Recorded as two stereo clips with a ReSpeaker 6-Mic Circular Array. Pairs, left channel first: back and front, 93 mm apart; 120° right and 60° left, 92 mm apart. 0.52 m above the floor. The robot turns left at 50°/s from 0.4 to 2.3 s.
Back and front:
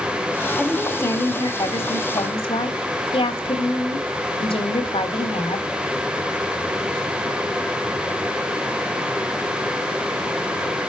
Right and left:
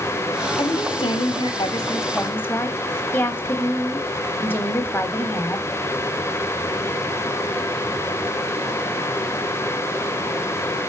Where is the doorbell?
I don't hear a doorbell.